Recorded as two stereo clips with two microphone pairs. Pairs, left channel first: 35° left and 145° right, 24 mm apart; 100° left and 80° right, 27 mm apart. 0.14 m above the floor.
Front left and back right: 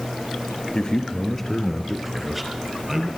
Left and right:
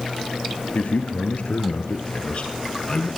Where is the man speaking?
85° left, 2.5 m; by 3.1 s 145° left, 4 m.